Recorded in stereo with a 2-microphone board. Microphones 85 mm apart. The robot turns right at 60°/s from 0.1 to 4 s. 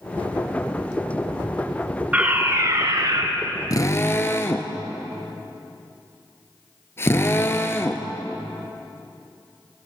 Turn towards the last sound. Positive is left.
turn(degrees=30)  # may be behind; listen again after turning